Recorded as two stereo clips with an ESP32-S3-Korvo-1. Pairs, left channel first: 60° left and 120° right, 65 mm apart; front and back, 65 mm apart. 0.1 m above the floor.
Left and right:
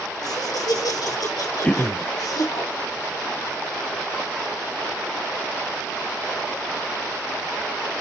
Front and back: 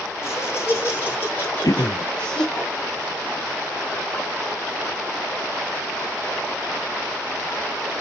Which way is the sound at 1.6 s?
5° right.